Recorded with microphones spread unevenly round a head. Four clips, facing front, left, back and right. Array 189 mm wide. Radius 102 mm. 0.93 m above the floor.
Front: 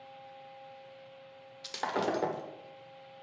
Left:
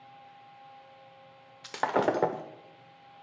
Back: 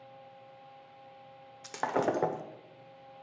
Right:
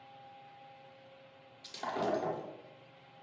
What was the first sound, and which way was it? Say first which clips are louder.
Breaking glass: left 8 dB, back 2 dB; 95° left.